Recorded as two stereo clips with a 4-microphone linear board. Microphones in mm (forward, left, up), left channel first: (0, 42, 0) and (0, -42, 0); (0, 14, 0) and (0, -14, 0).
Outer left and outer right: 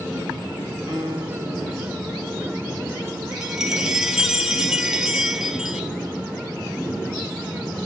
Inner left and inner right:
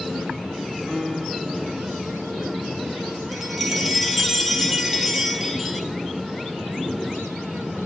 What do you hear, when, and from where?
0.9 s a piano: 50° right (ahead or behind), 2.5 m
3.3 s a chime: 5° right (ahead or behind), 0.9 m